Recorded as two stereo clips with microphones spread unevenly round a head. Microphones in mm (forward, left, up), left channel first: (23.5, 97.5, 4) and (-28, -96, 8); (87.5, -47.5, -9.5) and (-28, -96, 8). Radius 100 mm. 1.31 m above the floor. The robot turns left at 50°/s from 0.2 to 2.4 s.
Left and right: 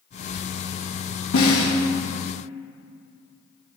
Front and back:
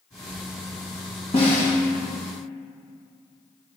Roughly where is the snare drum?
Left.